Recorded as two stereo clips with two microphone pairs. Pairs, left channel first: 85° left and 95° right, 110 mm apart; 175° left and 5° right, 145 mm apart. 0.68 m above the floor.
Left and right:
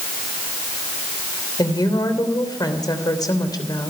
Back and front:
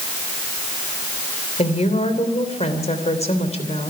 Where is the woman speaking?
135° left, 3 m.